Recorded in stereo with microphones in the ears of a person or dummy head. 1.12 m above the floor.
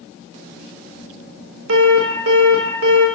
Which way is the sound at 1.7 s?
70° right (ahead or behind).